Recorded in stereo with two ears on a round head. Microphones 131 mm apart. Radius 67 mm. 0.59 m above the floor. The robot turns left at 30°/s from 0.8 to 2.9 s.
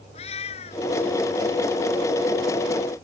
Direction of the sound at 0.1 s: 40° left (ahead or behind).